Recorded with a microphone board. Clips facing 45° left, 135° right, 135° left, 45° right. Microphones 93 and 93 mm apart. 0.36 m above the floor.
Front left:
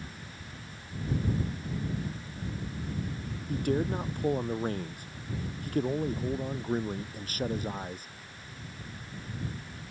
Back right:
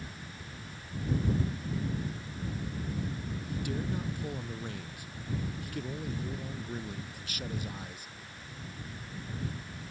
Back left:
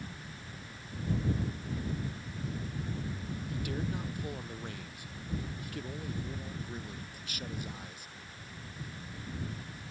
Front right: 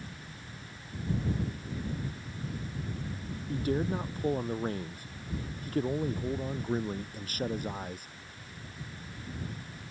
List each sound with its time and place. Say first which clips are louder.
3.5 s a man speaking: front left 7 dB, front right 8 dB; 5° left; by 8.1 s 5° right